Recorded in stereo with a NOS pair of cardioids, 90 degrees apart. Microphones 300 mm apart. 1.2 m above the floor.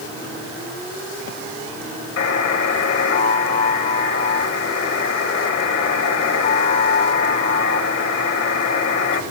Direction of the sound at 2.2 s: 55° left.